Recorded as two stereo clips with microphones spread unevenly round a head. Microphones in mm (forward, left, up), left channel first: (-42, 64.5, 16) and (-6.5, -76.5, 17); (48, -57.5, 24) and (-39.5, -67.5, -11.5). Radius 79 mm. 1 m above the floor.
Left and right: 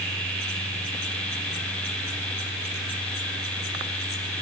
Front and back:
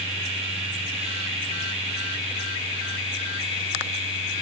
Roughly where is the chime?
No chime in this recording.